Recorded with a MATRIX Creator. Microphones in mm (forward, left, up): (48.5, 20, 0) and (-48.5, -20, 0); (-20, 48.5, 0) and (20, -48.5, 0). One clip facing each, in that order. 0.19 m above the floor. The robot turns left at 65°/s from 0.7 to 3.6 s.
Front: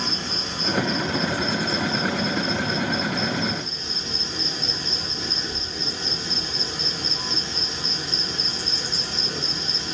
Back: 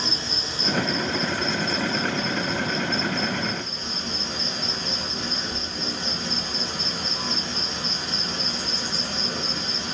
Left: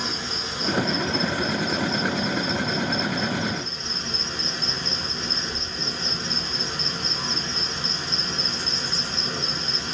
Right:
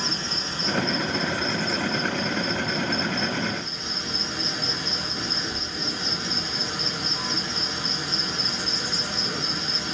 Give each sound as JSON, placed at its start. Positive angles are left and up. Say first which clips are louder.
{"t": 0.0, "sound": "an insect", "louder": "front 1 dB, even", "azimuth_deg": 40, "distance_m": 1.4}